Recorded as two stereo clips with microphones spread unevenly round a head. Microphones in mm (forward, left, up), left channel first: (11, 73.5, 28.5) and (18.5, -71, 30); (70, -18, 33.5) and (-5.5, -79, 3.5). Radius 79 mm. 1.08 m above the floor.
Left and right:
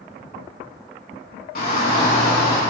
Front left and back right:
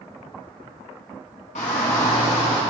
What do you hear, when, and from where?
1.6 s a shout: 75° left, 2.5 m; by 2.6 s 95° left, 3.5 m